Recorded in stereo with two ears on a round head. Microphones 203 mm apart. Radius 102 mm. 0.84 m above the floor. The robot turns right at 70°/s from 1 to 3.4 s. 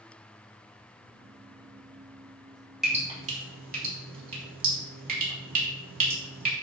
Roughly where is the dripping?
Centre.